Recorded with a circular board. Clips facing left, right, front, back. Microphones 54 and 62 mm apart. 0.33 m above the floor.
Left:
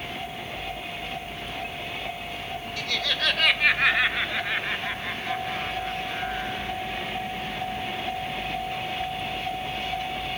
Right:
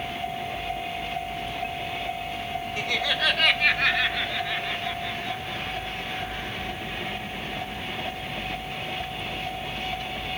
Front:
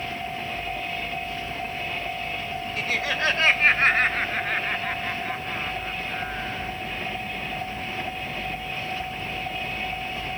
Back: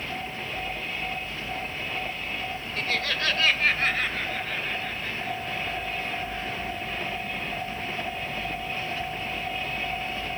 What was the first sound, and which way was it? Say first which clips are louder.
Laughter: right 2 dB, front 2 dB; 75° right.